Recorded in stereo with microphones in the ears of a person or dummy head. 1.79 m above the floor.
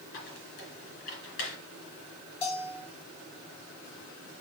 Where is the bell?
30° left (ahead or behind), 4 m.